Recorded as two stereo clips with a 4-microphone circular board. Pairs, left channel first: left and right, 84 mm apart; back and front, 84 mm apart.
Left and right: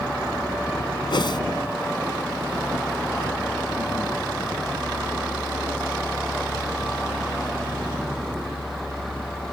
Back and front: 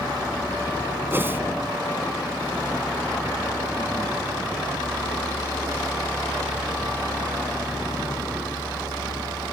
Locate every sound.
1.1 s a whoosh: 65° left